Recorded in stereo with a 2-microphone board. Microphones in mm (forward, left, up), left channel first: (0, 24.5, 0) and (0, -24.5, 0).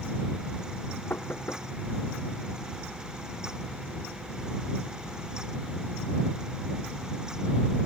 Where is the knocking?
50° left (ahead or behind).